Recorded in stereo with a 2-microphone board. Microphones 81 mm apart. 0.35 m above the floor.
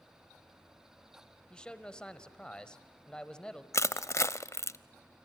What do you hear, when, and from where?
1.5 s a man speaking: 10° left (ahead or behind), 1.4 m
3.7 s crushing: 40° left (ahead or behind), 0.6 m